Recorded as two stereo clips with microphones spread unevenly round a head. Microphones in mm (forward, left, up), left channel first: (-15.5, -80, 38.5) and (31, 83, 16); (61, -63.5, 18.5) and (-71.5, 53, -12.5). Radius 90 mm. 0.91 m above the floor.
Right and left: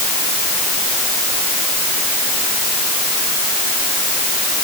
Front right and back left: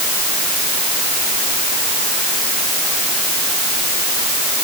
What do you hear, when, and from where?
Only background noise.